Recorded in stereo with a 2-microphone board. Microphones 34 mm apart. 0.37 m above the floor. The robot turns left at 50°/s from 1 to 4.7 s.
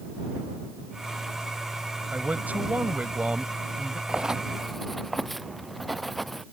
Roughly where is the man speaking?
Right.